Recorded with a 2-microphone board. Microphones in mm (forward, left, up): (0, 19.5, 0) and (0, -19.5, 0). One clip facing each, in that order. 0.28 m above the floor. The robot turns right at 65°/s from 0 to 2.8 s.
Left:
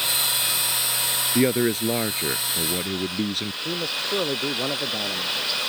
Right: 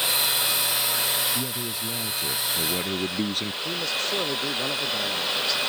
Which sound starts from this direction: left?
A man speaking, at 1.4 s.